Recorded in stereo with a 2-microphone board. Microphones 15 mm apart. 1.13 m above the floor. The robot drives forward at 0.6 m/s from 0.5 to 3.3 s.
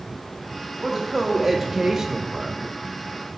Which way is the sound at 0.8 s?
20° right (ahead or behind).